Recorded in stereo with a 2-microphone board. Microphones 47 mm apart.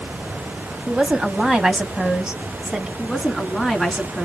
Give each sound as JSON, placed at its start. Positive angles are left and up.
{"t": 0.9, "sound": "a woman speaking", "side_deg": -15, "distance_m": 1.3}
{"t": 3.0, "sound": "a woman speaking", "side_deg": 5, "distance_m": 2.0}